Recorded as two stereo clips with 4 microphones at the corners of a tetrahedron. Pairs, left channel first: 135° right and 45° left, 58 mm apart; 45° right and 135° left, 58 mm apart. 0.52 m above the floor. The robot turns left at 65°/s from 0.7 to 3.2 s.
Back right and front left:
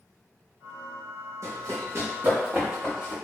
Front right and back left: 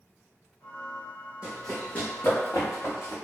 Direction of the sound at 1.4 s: 65° left.